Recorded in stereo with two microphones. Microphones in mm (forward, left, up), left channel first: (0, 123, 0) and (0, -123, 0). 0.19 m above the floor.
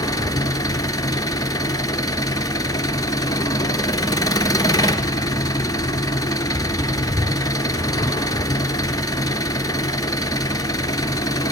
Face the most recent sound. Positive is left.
turn(degrees=15)  # may be behind; listen again after turning